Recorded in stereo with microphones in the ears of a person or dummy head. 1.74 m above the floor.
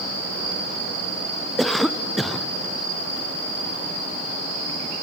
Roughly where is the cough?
Centre.